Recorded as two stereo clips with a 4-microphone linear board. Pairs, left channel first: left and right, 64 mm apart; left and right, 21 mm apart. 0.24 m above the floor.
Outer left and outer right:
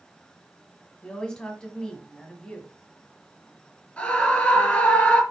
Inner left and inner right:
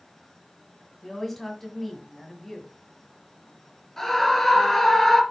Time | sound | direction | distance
1.0 | a woman speaking | 10° left (ahead or behind) | 1.6 m
4.0 | a scream | 15° left (ahead or behind) | 3 m